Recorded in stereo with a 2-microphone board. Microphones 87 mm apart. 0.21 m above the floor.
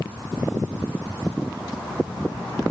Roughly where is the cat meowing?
No cat meowing in this recording.